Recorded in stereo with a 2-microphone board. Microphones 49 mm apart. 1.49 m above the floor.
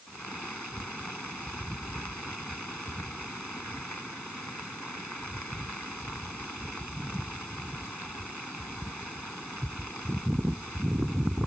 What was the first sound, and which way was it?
Only background noise.